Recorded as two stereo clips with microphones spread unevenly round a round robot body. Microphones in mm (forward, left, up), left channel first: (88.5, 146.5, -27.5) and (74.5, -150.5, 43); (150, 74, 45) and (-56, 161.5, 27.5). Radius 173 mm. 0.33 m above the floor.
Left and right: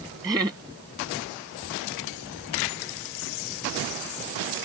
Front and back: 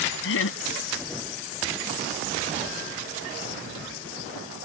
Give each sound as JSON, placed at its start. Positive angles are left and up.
{"t": 0.2, "sound": "laughter", "azimuth_deg": -10}